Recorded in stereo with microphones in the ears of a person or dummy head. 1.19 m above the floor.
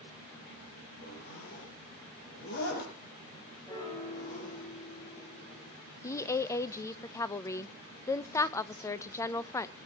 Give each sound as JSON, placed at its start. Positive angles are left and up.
{"t": 1.0, "sound": "a zipper", "side_deg": 65, "distance_m": 4.5}
{"t": 3.7, "sound": "a piano", "side_deg": 15, "distance_m": 5.5}
{"t": 6.0, "sound": "a woman speaking", "side_deg": 10, "distance_m": 0.6}